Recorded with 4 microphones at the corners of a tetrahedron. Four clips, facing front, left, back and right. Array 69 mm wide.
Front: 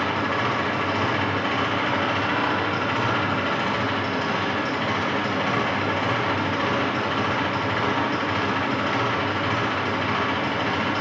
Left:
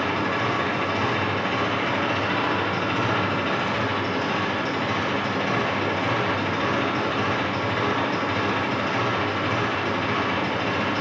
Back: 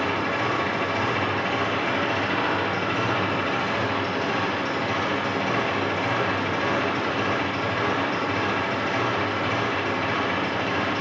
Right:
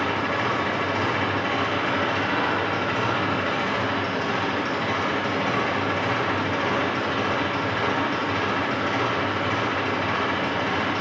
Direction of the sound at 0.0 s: 10° right.